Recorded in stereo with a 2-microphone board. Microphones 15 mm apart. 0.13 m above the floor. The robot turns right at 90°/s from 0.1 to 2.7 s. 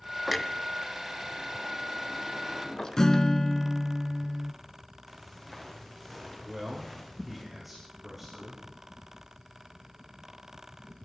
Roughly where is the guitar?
Left.